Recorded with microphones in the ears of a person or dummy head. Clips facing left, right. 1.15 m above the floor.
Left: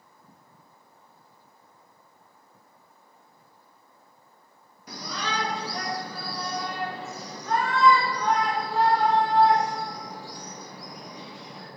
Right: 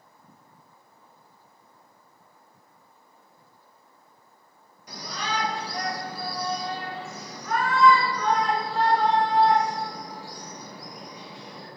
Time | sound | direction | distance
4.9 | a shout | 65° left (ahead or behind) | 1.3 m